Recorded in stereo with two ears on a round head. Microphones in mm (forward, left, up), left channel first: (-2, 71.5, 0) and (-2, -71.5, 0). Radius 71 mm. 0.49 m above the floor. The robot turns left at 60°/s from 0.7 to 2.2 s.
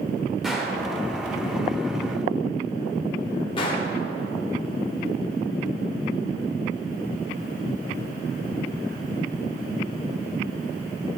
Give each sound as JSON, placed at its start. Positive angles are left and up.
{"t": 0.4, "sound": "a gunshot", "side_deg": -5, "distance_m": 1.4}